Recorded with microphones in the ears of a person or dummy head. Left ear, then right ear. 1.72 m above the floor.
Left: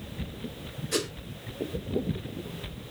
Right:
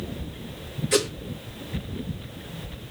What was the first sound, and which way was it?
A whoosh, 35° right (ahead or behind).